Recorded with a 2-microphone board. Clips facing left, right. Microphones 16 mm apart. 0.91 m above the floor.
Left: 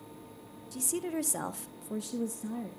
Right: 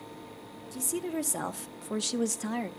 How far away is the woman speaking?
About 1.8 m.